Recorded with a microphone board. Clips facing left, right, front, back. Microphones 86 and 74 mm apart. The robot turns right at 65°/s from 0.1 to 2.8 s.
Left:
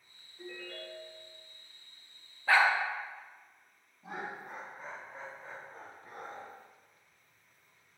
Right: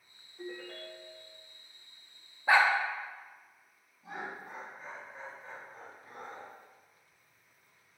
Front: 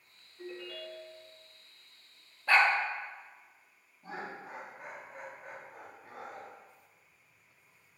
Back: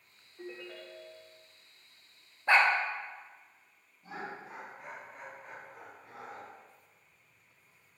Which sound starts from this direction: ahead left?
Laughter, at 4.0 s.